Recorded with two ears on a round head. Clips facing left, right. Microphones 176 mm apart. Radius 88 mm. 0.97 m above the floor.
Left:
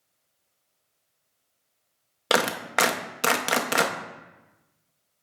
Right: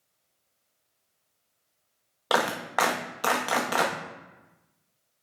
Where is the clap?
30° left (ahead or behind), 0.6 m.